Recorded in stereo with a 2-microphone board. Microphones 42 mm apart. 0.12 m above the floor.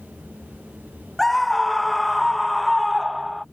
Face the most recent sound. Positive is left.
turn(degrees=0)  # may be behind; listen again after turning